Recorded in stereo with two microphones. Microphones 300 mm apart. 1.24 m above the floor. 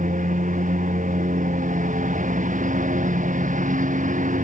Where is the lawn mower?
25° right (ahead or behind).